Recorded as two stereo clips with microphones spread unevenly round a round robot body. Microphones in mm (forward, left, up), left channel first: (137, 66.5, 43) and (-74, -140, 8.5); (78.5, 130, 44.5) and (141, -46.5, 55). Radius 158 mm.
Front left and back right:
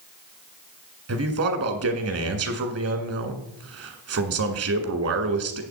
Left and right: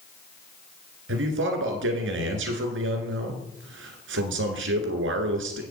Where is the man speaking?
100° right, 1.7 m.